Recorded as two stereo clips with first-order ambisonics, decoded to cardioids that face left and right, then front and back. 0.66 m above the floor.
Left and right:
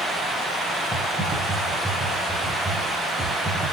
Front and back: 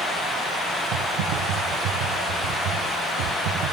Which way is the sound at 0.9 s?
170° right.